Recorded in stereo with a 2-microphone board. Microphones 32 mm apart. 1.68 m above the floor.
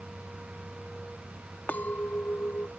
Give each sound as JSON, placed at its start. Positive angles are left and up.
{"t": 1.7, "sound": "a clink", "side_deg": 80}